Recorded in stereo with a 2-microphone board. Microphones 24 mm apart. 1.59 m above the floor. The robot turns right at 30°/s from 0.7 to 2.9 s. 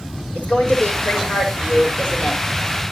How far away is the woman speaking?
About 5.5 m.